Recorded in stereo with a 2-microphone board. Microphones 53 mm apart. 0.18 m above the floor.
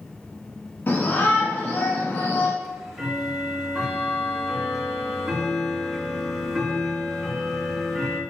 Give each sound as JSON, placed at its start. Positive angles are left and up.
{"t": 0.9, "sound": "a shout", "side_deg": 45, "distance_m": 1.5}
{"t": 2.6, "sound": "ticking", "side_deg": 0, "distance_m": 2.0}